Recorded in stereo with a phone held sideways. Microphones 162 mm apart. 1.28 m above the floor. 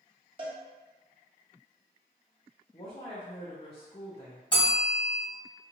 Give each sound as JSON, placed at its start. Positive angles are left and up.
{"t": 0.4, "sound": "a cowbell", "side_deg": -30, "distance_m": 1.0}
{"t": 2.7, "sound": "a woman speaking", "side_deg": 40, "distance_m": 0.7}
{"t": 4.5, "sound": "a bell", "side_deg": 30, "distance_m": 1.7}